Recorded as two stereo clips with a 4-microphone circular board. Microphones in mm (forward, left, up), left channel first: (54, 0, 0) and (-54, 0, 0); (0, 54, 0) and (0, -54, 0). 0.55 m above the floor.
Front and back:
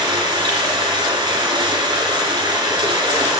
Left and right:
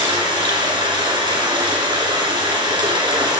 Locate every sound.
0.0 s running water: 135° right, 2.5 m